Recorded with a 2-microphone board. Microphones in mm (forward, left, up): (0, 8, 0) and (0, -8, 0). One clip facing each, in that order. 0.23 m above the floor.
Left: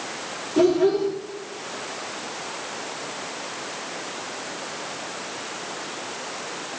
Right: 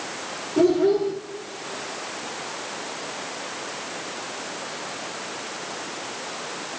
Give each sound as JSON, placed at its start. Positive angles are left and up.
{"t": 0.6, "sound": "a child speaking", "side_deg": 65, "distance_m": 4.0}